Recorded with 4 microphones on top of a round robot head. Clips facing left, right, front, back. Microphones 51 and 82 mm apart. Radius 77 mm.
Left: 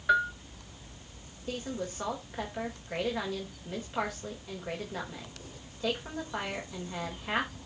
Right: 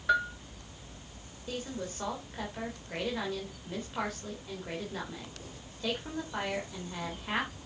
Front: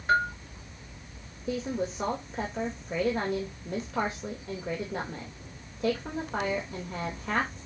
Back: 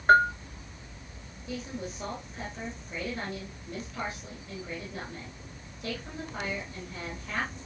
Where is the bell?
175° left, 1.3 m.